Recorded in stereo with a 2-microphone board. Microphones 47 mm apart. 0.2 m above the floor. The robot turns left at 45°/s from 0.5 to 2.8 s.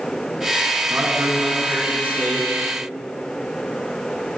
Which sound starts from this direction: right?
A man speaking, at 0.9 s.